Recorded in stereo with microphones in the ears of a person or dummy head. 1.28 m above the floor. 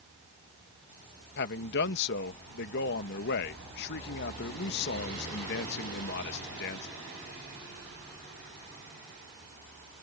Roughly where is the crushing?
No crushing in this recording.